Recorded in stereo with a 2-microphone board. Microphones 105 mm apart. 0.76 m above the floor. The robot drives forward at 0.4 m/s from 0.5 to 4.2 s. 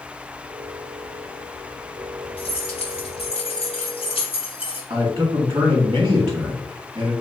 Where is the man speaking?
40° right (ahead or behind), 1.1 m.